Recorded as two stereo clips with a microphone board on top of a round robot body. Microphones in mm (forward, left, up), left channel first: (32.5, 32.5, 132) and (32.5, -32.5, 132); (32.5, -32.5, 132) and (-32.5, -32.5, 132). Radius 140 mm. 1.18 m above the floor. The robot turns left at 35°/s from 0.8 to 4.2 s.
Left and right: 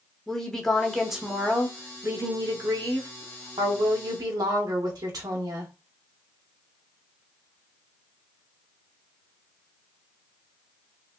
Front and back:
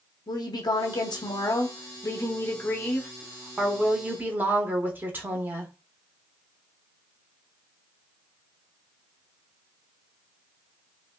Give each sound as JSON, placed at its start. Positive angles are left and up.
{"t": 0.3, "sound": "a woman speaking", "azimuth_deg": 5, "distance_m": 1.1}